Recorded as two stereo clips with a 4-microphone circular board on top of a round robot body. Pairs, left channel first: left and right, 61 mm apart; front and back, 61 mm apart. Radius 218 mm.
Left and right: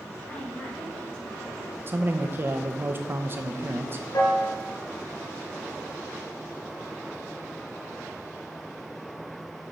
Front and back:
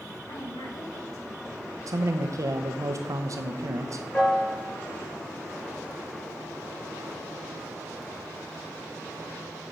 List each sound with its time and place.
0.3 s a woman speaking: 20° left, 3.5 m; by 1.8 s 5° left, 4.5 m
1.9 s a man speaking: 145° right, 0.9 m
4.1 s a piano: 70° left, 3.5 m